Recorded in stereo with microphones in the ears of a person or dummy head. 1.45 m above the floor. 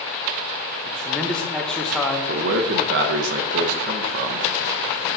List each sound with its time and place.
0.8 s a man speaking: 5° left (ahead or behind), 1.0 m
2.3 s a man speaking: 65° right (ahead or behind), 0.8 m